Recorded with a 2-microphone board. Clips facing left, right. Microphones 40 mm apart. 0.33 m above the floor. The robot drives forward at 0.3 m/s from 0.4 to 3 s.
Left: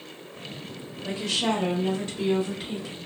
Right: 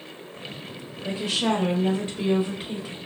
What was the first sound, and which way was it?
A woman speaking, 20° right (ahead or behind).